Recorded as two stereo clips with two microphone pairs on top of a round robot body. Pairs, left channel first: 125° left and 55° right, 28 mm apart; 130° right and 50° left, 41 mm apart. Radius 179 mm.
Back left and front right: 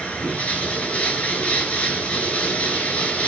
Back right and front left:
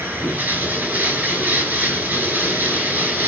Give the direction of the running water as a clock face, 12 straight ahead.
9 o'clock.